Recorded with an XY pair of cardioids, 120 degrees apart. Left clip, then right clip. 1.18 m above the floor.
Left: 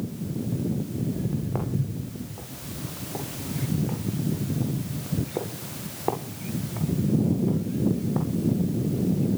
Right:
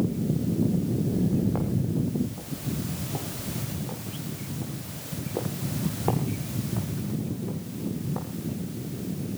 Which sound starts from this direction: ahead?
Footsteps, at 1.1 s.